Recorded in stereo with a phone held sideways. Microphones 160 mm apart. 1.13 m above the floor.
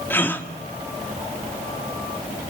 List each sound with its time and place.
0.1 s a gasp: 10° left (ahead or behind), 1.6 m